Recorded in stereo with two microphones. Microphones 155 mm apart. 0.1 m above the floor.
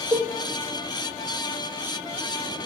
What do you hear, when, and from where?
0.1 s a cowbell: 25° right (ahead or behind), 1.3 m